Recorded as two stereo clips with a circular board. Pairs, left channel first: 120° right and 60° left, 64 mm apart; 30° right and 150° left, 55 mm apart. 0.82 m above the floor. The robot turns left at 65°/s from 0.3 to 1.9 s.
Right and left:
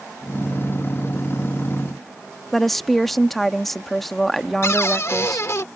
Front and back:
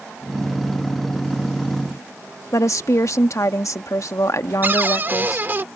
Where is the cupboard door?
160° right.